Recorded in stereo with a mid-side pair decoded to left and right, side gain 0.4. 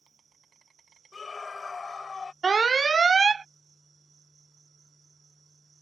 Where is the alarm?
35° right.